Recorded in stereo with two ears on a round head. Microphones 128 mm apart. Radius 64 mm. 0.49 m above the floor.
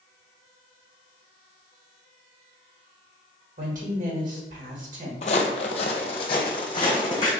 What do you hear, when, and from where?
3.6 s a woman speaking: 60° right (ahead or behind), 1.8 m
5.2 s footsteps: 50° left (ahead or behind), 0.7 m; by 7.3 s 30° left (ahead or behind), 1.6 m